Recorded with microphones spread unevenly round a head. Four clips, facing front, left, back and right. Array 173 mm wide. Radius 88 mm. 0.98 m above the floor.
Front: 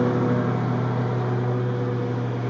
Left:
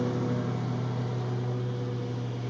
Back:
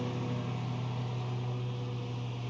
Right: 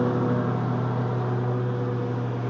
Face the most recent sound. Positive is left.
turn(degrees=-20)